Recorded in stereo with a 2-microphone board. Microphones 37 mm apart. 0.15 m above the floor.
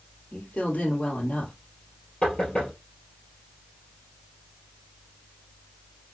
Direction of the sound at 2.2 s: 30° left (ahead or behind).